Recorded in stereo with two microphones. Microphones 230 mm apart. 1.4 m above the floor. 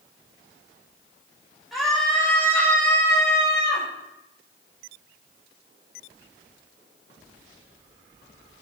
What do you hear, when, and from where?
1.7 s a scream: centre (ahead or behind), 5.5 m; by 3.9 s 20° left (ahead or behind), 5 m